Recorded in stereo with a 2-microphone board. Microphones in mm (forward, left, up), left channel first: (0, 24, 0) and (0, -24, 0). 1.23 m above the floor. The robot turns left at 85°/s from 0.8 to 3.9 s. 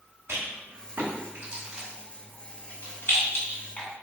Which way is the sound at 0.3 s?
60° right (ahead or behind).